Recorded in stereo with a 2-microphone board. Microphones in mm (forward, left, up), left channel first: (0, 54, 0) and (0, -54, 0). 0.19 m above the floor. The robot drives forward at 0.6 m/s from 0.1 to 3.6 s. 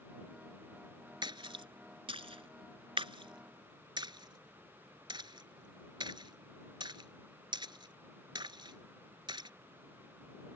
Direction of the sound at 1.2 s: 50° right (ahead or behind).